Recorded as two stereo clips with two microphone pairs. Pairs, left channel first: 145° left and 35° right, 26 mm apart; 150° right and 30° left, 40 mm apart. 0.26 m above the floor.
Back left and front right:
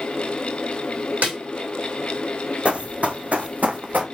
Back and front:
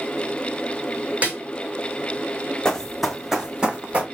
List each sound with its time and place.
1.2 s a snare drum: 25° right, 3.5 m
2.6 s running footsteps: 75° right, 0.8 m; by 4.0 s 25° right, 1.1 m